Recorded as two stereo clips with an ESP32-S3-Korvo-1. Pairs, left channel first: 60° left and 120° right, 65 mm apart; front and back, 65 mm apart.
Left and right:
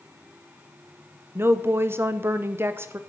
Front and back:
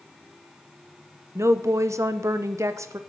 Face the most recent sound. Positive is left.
turn(degrees=-160)